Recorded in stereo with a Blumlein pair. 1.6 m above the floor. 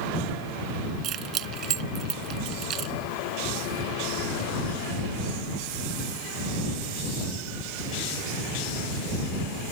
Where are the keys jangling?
35° right.